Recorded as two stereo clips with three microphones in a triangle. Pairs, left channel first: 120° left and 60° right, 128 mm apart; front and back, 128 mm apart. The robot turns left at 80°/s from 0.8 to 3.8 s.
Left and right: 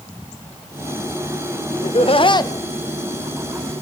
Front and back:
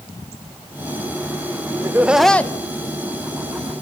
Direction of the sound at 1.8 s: 120° left.